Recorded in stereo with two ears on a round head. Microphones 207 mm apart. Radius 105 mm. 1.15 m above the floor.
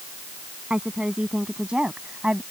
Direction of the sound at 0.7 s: 5° right (ahead or behind).